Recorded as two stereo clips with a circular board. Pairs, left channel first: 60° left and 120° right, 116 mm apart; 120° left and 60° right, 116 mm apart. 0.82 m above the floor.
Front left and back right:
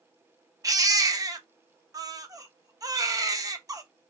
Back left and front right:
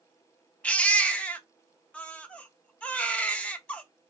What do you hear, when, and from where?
0.6 s a baby crying: 165° right, 0.6 m